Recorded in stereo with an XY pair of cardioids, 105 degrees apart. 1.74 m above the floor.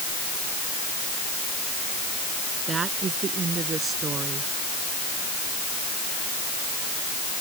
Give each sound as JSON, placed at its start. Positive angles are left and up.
{"t": 2.7, "sound": "a woman speaking", "azimuth_deg": -45}